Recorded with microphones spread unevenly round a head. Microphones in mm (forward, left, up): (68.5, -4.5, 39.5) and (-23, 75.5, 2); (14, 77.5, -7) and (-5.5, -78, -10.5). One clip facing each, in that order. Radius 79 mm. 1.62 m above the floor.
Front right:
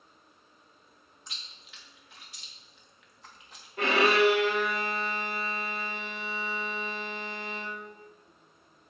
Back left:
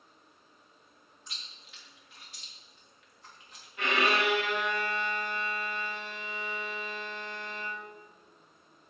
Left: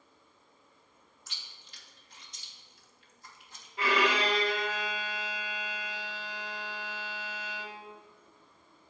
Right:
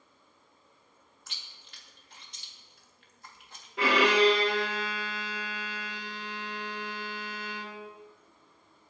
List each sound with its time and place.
1.3 s chewing: 60° right, 2.0 m
3.8 s a violin: 85° right, 1.4 m